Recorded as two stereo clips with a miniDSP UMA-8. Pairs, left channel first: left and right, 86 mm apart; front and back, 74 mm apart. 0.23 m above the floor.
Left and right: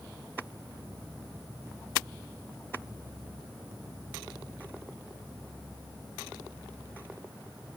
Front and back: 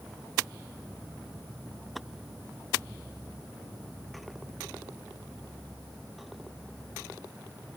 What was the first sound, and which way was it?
Only background noise.